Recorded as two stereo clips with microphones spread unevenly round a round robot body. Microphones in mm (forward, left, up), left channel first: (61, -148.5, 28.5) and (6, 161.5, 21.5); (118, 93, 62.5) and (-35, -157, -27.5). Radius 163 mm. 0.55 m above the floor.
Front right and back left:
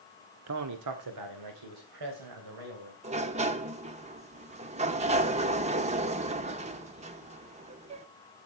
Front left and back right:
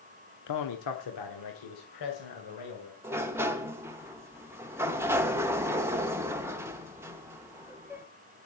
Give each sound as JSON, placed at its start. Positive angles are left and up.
{"t": 0.5, "sound": "a man speaking", "azimuth_deg": 90, "distance_m": 1.2}
{"t": 3.0, "sound": "a sliding door", "azimuth_deg": 170, "distance_m": 0.6}